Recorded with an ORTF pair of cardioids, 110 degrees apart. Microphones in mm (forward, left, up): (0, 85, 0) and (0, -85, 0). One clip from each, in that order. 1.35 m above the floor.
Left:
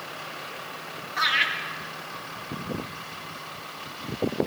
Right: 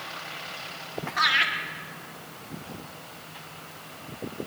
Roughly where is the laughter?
Ahead.